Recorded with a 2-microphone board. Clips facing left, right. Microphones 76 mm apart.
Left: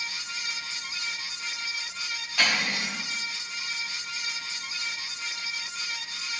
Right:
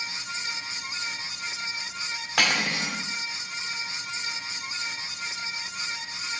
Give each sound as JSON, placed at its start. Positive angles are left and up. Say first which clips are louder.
{"t": 2.4, "sound": "cutlery clinking", "louder": "right 2 dB", "side_deg": -70, "distance_m": 2.0}